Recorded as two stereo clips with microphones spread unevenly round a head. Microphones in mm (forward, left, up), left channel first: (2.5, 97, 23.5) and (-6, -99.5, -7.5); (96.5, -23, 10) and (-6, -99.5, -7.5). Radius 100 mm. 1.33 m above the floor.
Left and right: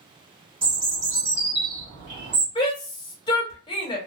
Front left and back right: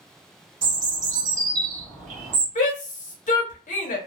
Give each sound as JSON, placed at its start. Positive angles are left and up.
{"t": 0.6, "sound": "a bird", "azimuth_deg": -155, "distance_m": 1.3}
{"t": 2.5, "sound": "a shout", "azimuth_deg": 15, "distance_m": 1.2}